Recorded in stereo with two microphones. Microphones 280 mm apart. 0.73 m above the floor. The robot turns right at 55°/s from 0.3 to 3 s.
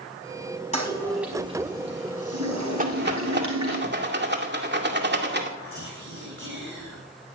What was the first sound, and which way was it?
A toilet flushing, 25° left (ahead or behind).